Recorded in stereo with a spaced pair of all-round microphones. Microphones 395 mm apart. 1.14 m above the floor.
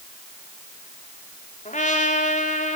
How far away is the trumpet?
About 2.5 m.